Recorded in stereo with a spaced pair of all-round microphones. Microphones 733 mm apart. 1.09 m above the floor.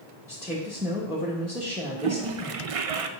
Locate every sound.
0.3 s a woman speaking: 5° right (ahead or behind), 1.1 m
2.0 s a toilet flushing: 55° right (ahead or behind), 0.5 m